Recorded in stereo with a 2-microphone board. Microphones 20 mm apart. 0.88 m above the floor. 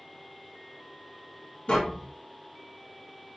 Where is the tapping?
70° left (ahead or behind), 1.3 m.